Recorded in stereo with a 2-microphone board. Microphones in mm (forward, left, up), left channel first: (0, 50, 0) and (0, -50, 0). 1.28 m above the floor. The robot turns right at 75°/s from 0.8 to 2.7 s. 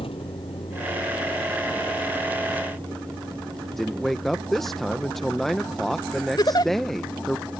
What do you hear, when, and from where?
0.0 s a vehicle: 75° left (ahead or behind); by 7.6 s 45° right (ahead or behind)
3.7 s a man speaking: centre (ahead or behind)
6.4 s a giggle: 50° left (ahead or behind)